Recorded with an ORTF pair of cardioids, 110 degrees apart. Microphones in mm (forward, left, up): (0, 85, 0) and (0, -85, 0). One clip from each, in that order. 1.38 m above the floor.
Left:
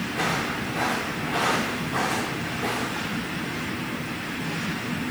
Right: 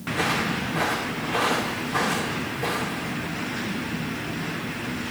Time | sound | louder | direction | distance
0.1 | footsteps | right 3 dB | 15° right | 5 m